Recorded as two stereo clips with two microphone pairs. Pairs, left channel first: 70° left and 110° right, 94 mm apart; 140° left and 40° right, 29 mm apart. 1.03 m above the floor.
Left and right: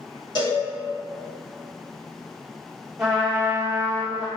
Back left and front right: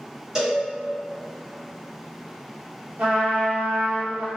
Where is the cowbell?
30° left, 1.8 m.